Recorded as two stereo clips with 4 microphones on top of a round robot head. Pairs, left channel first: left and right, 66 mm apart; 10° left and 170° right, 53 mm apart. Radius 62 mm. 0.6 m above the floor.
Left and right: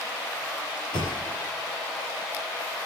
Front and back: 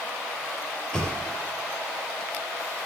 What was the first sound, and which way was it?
A thud, 90° left.